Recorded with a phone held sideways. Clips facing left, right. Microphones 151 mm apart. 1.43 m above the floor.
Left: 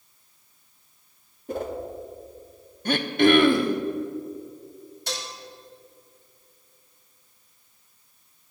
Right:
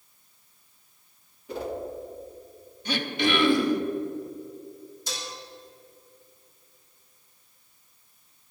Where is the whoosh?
45° left (ahead or behind), 1.7 m.